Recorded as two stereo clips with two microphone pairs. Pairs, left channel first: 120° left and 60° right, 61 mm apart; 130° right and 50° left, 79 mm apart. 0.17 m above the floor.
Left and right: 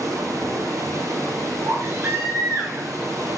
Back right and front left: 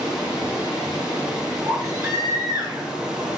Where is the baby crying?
Straight ahead, 5.5 m.